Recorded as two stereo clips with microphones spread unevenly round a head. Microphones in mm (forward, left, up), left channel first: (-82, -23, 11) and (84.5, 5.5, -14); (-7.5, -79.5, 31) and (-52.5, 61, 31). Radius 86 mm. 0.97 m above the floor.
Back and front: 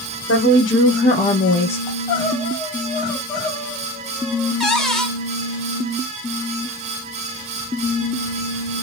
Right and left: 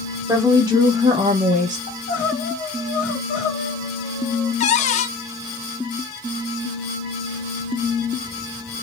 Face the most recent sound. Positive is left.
turn(degrees=-75)